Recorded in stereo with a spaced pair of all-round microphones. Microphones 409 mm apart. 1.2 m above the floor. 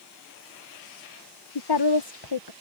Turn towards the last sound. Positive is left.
turn(degrees=75)  # may be behind; listen again after turning